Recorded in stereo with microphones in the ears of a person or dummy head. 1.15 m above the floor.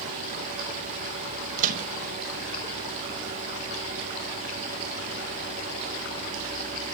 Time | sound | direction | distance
1.6 | a microwave | 45° right (ahead or behind) | 1.1 m